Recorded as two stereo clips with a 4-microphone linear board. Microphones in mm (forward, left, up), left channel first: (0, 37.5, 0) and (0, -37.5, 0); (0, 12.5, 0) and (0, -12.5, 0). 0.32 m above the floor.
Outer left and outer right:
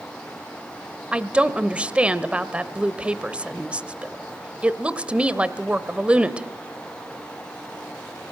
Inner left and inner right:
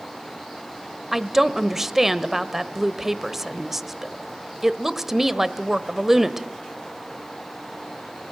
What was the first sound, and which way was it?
A woman speaking, 15° right (ahead or behind).